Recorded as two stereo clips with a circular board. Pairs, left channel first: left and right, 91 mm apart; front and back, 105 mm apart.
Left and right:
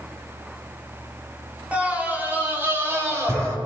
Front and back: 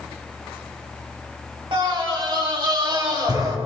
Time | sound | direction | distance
1.7 | a scream | 160° right | 2 m